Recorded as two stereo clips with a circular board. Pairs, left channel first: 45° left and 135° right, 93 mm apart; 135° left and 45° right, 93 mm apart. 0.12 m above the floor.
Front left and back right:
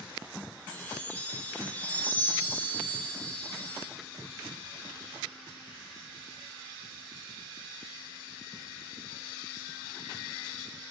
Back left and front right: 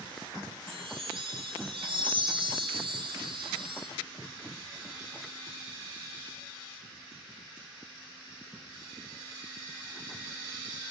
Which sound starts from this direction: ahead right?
A chime, at 0.7 s.